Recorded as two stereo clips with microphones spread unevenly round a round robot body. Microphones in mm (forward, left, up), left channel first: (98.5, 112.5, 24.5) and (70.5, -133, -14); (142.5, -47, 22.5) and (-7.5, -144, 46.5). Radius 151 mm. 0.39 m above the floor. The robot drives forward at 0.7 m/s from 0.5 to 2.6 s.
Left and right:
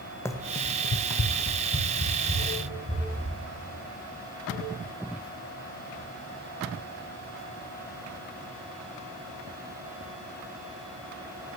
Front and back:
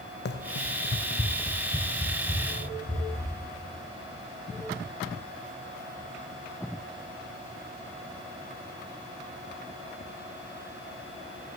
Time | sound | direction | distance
0.2 | running footsteps | 5° left | 1.2 m